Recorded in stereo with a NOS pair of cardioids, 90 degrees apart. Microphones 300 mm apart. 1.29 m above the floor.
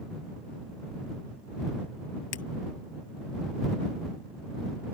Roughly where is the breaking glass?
Ahead left.